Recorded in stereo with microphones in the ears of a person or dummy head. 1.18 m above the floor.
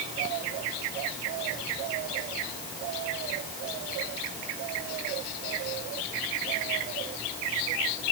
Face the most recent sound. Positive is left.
No sound to turn to.